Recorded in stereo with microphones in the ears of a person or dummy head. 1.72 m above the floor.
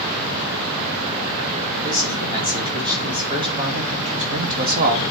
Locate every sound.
1.8 s a man speaking: 15° right (ahead or behind), 3.5 m; by 5.1 s 55° right (ahead or behind), 1.1 m